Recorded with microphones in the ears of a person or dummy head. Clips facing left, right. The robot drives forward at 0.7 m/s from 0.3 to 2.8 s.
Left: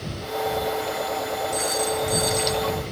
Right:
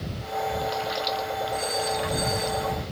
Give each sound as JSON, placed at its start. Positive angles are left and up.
{"t": 1.5, "sound": "a phone ringing", "side_deg": 75, "distance_m": 9.0}